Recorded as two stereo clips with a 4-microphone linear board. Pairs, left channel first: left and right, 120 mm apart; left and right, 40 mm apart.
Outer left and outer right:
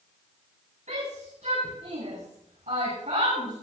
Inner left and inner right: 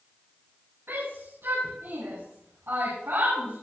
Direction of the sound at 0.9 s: 90° right.